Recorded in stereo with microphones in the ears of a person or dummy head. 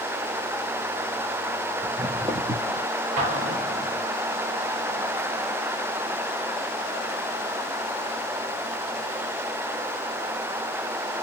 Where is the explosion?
35° right (ahead or behind), 1.0 m.